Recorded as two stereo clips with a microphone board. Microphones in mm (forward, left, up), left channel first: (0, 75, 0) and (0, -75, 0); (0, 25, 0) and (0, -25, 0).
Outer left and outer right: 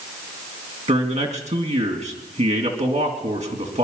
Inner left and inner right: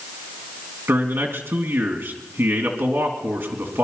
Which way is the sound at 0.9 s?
50° right (ahead or behind).